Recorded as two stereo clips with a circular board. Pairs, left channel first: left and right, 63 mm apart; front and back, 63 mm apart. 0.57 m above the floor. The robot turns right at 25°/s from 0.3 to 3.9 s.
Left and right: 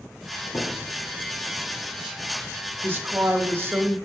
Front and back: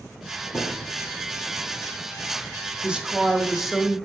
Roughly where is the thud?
Ahead left.